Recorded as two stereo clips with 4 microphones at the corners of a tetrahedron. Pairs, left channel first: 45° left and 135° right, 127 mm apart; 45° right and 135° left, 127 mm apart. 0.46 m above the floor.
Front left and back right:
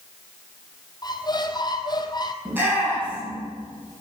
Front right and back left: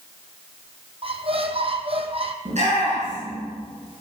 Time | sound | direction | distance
1.0 | a squeak | 100° left | 1.4 m
2.5 | a shout | 155° left | 6.5 m